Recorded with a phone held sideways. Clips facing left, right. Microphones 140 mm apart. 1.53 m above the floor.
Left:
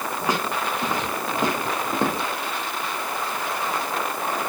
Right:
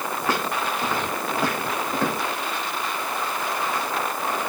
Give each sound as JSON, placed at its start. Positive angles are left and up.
{"t": 0.2, "sound": "footsteps", "side_deg": 15, "distance_m": 5.0}